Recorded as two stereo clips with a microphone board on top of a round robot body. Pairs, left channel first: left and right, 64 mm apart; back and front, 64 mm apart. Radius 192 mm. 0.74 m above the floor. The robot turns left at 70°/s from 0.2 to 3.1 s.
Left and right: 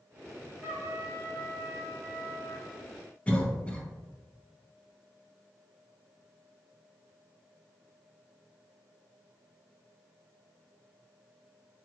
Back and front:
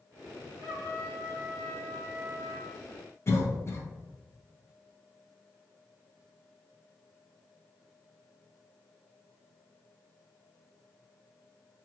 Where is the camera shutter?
No camera shutter in this recording.